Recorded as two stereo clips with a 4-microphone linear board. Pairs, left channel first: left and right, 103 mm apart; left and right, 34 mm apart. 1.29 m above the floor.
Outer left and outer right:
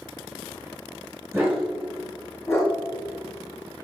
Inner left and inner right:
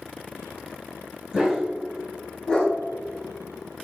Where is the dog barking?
25° right (ahead or behind), 1.2 m; by 3.8 s 55° left (ahead or behind), 1.8 m.